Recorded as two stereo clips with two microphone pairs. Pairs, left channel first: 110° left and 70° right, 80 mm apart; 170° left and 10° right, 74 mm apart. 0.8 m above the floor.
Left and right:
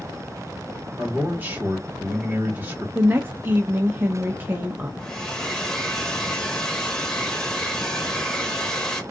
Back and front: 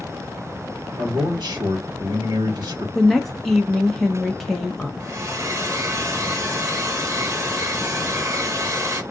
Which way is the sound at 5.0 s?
30° left.